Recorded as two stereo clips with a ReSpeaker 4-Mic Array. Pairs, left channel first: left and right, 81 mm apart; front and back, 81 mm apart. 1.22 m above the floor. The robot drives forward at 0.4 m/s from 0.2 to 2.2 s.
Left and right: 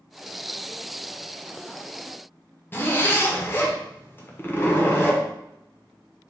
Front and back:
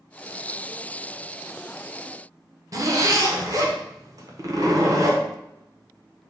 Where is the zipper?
150° left, 0.8 m.